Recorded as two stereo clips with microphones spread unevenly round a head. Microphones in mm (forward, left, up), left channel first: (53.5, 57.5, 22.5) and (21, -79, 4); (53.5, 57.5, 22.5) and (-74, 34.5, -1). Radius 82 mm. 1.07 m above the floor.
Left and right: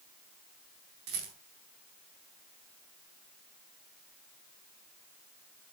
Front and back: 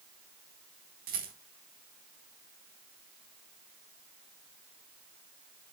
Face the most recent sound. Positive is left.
turn(degrees=-135)